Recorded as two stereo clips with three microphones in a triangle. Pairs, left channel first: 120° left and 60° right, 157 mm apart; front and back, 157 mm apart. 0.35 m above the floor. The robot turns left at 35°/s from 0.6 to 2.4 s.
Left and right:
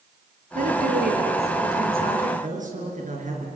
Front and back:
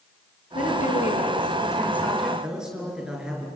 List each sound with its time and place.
0.6 s a woman speaking: 30° right, 6 m; by 2.3 s 90° right, 6 m
2.4 s a man speaking: 95° right, 6 m